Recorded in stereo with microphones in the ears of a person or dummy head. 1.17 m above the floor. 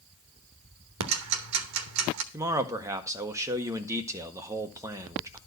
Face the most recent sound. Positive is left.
turn(degrees=-15)  # may be behind; listen again after turning